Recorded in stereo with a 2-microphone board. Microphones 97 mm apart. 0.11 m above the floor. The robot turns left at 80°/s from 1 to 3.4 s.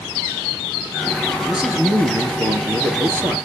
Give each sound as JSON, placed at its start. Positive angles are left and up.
{"t": 1.5, "sound": "a man speaking", "azimuth_deg": 0, "distance_m": 2.0}